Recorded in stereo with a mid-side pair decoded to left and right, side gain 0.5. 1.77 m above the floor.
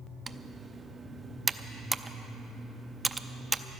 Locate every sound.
0.3 s typing on a keyboard: 20° right, 0.6 m